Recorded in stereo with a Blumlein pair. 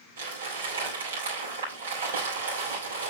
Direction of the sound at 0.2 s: 65° right.